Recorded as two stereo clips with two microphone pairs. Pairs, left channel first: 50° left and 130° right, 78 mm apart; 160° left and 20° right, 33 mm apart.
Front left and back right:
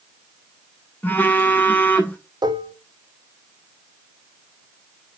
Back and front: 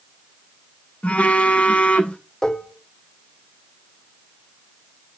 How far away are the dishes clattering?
About 0.9 m.